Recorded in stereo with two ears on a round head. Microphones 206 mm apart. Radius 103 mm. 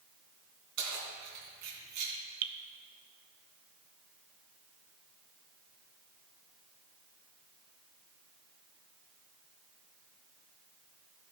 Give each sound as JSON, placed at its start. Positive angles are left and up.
{"t": 0.8, "sound": "keys jangling", "side_deg": -80, "distance_m": 3.5}
{"t": 2.4, "sound": "dripping", "side_deg": -75, "distance_m": 0.7}